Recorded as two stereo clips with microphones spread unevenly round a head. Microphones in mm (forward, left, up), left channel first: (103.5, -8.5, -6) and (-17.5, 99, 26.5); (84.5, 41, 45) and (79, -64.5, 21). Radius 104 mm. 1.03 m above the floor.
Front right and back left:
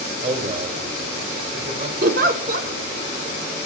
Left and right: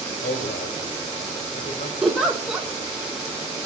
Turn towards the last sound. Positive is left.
turn(degrees=-175)